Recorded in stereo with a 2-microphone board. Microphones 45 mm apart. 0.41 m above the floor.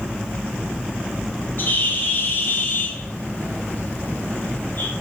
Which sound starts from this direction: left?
A bird, at 1.6 s.